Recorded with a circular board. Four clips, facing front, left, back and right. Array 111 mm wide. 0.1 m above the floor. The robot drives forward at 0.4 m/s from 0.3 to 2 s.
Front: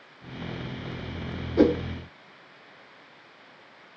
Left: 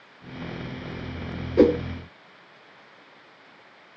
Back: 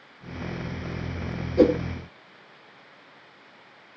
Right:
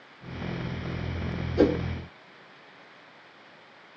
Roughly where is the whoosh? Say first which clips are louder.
Left 5 dB, back 2 dB; left.